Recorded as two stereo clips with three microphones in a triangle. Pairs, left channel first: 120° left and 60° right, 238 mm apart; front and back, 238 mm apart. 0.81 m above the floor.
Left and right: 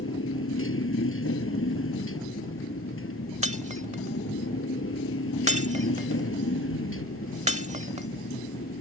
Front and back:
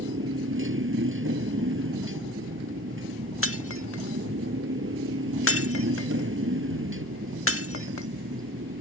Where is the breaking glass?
5° right.